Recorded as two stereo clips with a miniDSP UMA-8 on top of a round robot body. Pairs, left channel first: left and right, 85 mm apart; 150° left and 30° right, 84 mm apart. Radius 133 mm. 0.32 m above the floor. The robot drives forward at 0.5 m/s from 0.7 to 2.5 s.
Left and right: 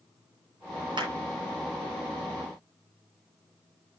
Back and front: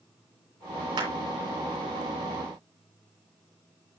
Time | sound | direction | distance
1.0 | a clap | 60° right | 7.5 m